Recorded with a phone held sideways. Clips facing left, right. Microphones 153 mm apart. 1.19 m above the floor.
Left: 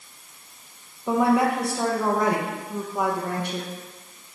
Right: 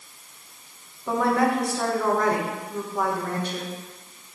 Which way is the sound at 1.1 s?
15° left (ahead or behind).